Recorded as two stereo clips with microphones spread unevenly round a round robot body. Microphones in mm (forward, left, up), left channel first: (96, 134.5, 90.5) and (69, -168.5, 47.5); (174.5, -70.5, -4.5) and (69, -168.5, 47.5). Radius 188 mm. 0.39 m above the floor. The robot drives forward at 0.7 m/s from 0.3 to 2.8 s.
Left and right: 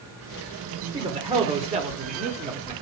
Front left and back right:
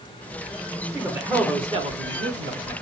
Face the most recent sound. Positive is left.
turn(degrees=-145)